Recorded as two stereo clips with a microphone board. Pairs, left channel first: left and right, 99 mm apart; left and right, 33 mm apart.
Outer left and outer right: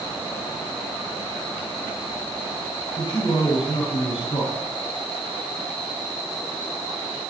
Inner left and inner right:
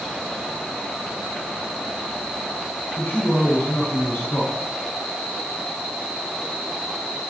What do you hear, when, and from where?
3.0 s a man speaking: 50° left (ahead or behind), 6.5 m